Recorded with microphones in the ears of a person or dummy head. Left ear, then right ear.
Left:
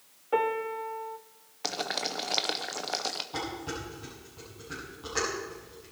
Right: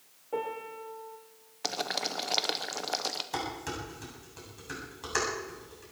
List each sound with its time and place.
0.3 s a piano: 50° left (ahead or behind), 1.8 m
1.6 s boiling: 5° right (ahead or behind), 0.7 m
3.3 s dishes clattering: 65° right (ahead or behind), 8 m